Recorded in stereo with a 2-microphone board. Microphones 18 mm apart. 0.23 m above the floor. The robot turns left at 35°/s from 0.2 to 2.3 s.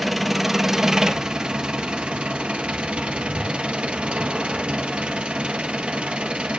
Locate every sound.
0.0 s an engine running: 10° right, 1.4 m; by 6.6 s 85° right, 1.4 m